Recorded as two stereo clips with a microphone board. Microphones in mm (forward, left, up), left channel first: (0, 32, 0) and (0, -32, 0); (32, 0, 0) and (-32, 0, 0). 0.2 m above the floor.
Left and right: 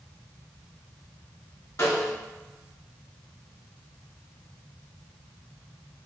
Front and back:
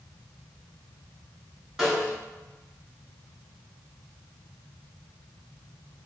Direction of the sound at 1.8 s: 100° left.